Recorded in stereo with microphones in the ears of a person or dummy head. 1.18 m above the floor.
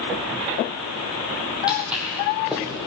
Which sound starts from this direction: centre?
Footsteps, at 1.7 s.